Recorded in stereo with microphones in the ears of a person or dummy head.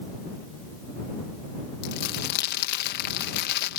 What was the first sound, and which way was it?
Crumpling, 60° left (ahead or behind).